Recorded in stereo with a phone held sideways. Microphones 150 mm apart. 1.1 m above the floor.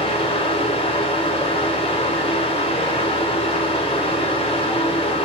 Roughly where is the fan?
Left.